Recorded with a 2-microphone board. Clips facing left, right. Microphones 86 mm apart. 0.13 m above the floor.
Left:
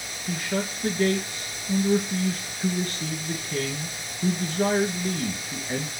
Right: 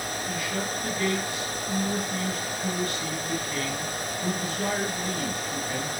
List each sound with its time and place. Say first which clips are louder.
0.3 s a man speaking: left 5 dB; 35° left (ahead or behind), 1.3 m